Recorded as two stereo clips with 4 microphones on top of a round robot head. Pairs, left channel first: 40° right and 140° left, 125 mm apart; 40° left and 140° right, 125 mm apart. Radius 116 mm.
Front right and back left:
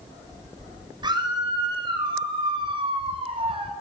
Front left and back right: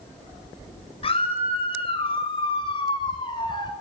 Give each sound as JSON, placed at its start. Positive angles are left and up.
{"t": 1.0, "sound": "a scream", "azimuth_deg": 85, "distance_m": 8.5}